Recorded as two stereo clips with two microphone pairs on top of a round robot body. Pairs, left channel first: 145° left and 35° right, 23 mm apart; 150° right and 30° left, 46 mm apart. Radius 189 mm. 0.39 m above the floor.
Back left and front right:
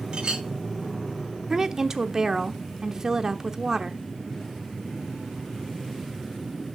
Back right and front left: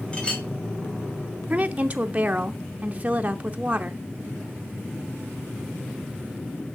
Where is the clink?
85° right, 2.5 m.